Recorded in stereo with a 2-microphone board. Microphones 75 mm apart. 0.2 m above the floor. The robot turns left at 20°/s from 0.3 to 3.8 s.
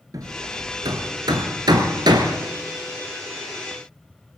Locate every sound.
0.1 s hammering: 55° right (ahead or behind), 1.4 m; by 2.4 s 70° right (ahead or behind), 1.4 m